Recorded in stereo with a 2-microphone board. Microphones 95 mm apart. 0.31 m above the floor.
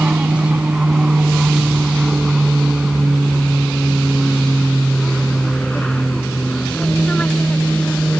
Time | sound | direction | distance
0.0 | an aircraft | 15° right (ahead or behind) | ?